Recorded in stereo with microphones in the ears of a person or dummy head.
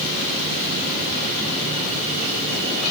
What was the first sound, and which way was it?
Only background noise.